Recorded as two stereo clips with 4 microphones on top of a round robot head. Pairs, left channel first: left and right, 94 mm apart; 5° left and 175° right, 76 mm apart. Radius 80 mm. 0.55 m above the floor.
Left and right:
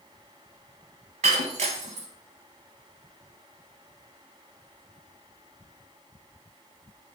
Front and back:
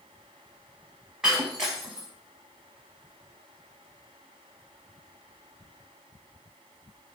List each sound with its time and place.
1.2 s breaking glass: 90° right, 1.0 m